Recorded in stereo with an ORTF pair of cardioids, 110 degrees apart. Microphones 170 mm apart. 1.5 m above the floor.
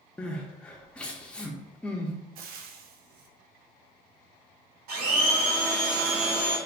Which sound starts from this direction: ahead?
Crying, at 0.2 s.